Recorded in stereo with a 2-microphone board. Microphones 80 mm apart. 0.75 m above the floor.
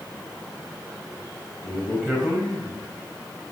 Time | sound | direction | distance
1.6 | a man speaking | centre (ahead or behind) | 4 m